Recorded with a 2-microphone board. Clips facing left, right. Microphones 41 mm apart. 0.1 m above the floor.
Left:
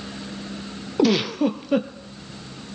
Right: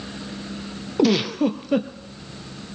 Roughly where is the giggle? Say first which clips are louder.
Even; centre.